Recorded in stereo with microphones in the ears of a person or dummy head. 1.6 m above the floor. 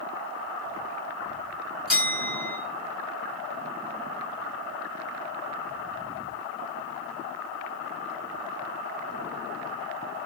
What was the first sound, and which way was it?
A bell, 5° right (ahead or behind).